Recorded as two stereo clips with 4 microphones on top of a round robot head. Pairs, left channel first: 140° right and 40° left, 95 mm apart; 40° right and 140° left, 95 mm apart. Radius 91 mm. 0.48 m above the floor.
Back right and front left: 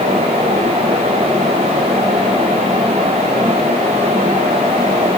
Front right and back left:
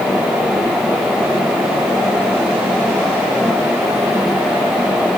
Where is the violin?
I don't hear a violin.